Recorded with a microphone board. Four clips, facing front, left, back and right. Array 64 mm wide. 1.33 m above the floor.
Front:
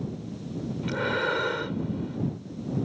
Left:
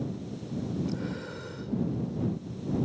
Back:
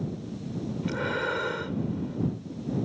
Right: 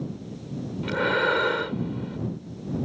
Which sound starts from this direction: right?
Breathing, at 0.8 s.